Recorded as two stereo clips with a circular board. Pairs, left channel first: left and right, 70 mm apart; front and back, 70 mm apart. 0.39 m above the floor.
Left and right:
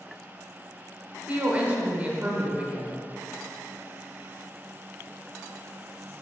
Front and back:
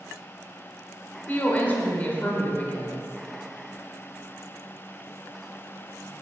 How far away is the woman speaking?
About 0.9 m.